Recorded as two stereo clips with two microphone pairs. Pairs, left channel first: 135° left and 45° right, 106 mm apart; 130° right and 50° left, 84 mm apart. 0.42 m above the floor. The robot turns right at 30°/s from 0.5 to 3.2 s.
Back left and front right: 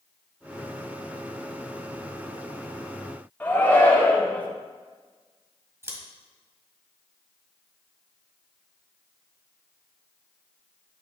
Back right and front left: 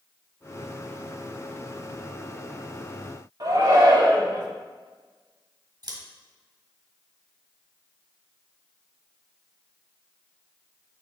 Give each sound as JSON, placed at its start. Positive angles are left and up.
{"t": 3.4, "sound": "a shout", "azimuth_deg": 65, "distance_m": 1.5}
{"t": 5.8, "sound": "scissors", "azimuth_deg": 20, "distance_m": 1.4}